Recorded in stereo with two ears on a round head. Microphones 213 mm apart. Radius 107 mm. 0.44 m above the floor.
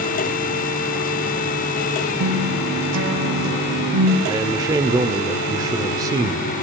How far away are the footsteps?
I don't hear footsteps.